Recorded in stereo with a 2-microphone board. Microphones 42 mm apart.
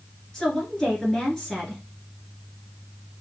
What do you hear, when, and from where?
0.3 s a woman speaking: 15° left (ahead or behind), 2.5 m